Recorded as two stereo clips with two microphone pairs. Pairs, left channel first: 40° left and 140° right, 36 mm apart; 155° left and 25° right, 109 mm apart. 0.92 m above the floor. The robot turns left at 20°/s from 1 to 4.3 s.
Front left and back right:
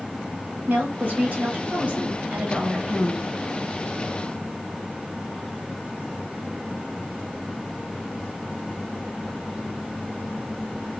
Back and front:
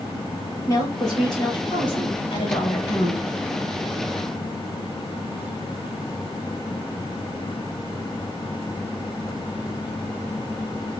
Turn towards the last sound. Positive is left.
turn(degrees=135)